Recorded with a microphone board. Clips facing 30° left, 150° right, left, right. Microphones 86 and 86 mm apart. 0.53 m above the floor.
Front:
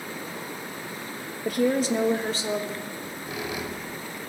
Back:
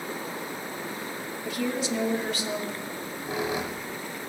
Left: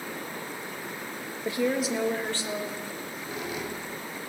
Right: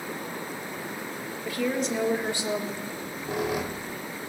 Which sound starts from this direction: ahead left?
A woman speaking, at 1.4 s.